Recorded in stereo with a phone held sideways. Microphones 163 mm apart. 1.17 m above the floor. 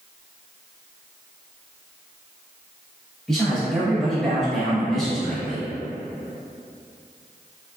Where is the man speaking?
Centre (ahead or behind), 1.0 m.